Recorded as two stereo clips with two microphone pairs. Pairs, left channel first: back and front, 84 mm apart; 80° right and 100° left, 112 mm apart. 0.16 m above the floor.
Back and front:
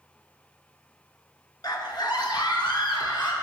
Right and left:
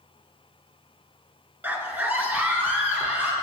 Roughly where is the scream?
Behind.